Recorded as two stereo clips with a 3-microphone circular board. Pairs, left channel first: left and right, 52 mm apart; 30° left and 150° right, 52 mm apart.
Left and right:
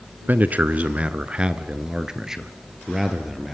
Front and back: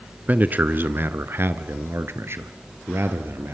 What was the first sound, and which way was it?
A man speaking, 115° right.